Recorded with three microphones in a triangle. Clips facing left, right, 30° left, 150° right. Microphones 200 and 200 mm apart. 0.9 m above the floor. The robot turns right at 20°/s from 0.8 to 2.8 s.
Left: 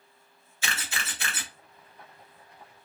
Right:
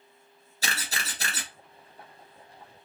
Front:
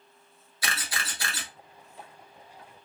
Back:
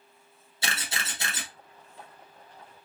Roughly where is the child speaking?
I don't hear a child speaking.